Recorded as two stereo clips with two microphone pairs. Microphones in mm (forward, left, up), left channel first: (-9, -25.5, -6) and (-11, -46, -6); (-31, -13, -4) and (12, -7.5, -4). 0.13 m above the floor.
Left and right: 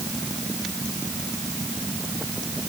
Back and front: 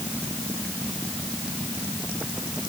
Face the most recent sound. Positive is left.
No sound to turn to.